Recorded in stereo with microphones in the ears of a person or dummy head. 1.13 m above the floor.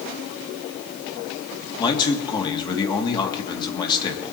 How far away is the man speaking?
About 2.5 m.